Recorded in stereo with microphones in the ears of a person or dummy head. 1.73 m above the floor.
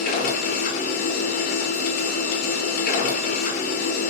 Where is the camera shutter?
I don't hear a camera shutter.